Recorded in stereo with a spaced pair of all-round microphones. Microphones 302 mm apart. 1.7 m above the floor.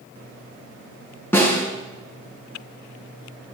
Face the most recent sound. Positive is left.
turn(degrees=5)  # may be behind; listen again after turning